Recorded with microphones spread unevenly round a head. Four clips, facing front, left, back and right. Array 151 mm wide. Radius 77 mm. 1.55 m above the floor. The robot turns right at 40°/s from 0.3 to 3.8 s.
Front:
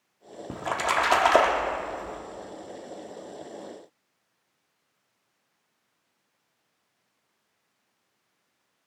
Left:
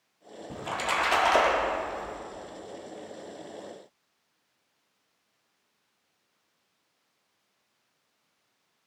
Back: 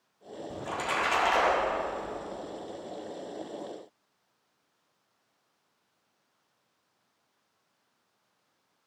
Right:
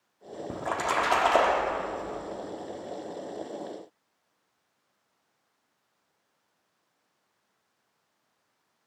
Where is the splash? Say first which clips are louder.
Right 2 dB, front 6 dB; 40° right, 1.8 m; by 2.2 s 25° left, 1.8 m.